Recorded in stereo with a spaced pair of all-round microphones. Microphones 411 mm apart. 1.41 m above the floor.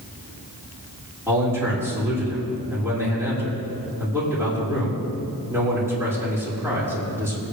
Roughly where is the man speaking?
Centre.